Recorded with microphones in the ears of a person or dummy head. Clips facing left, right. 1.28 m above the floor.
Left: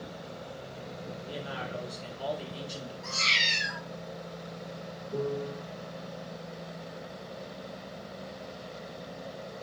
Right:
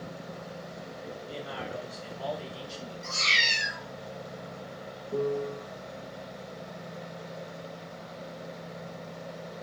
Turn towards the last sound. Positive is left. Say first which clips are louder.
# right 3 dB
turn(degrees=-65)  # may be behind; listen again after turning